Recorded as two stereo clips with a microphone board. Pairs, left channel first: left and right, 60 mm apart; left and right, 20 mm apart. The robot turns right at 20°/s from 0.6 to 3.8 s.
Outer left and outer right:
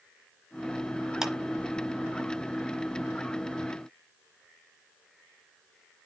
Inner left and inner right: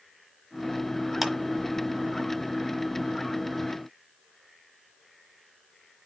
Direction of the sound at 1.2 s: 10° right (ahead or behind).